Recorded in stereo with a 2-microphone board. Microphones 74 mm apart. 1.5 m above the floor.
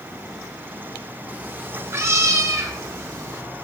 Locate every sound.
1.3 s a cat meowing: 20° right (ahead or behind), 1.0 m; by 3.4 s 40° right (ahead or behind), 1.3 m